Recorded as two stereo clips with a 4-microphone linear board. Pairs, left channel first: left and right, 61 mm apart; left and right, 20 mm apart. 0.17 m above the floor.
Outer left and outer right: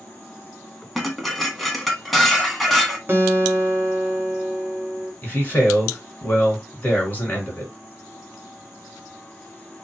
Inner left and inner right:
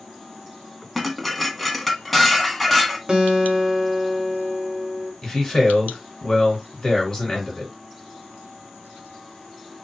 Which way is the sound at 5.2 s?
30° left (ahead or behind).